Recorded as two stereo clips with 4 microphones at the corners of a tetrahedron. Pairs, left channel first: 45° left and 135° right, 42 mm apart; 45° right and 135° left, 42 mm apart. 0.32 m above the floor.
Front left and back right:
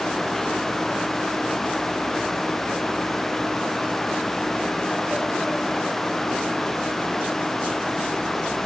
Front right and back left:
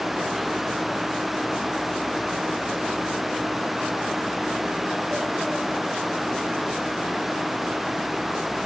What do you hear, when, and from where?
Only background noise.